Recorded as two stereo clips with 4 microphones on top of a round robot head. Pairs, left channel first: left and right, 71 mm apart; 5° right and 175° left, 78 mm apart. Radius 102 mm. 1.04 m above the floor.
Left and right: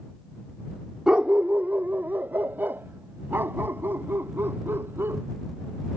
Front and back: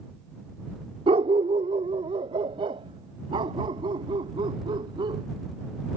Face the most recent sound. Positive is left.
turn(degrees=-150)